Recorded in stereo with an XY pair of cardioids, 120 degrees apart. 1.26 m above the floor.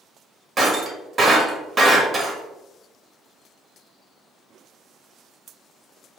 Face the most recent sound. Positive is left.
turn(degrees=-20)